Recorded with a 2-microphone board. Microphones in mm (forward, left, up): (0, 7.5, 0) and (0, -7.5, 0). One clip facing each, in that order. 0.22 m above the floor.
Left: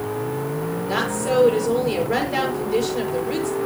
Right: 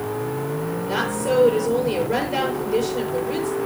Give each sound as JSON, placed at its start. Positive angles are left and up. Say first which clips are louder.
{"t": 0.9, "sound": "a woman speaking", "louder": "even", "side_deg": 15, "distance_m": 5.0}